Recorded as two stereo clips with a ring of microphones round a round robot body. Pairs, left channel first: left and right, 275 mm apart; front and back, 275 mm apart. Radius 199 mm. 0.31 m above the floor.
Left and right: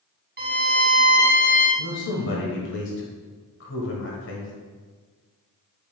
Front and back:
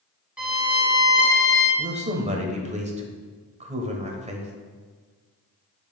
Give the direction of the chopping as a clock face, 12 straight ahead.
No chopping in this recording.